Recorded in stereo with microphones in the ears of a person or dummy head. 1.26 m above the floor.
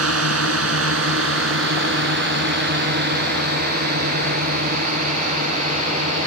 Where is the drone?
75° right (ahead or behind); by 6.3 s 35° right (ahead or behind).